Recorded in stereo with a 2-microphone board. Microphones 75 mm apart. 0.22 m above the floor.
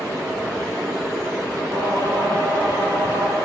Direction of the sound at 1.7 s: 60° right (ahead or behind).